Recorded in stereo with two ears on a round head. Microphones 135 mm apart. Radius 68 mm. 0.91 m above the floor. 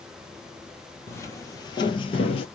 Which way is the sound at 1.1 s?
15° left (ahead or behind).